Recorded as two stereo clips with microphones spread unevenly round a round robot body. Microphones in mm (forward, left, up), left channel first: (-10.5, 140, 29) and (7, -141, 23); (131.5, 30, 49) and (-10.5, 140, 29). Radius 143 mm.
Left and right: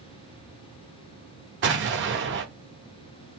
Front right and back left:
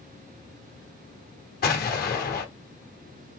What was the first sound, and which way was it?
An explosion, 55° right.